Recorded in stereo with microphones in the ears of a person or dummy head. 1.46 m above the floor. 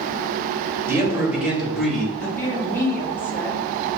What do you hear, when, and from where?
0.9 s a man speaking: 15° right (ahead or behind), 1.7 m; by 2.3 s 10° left (ahead or behind), 1.6 m
2.4 s a woman speaking: 15° left (ahead or behind), 1.4 m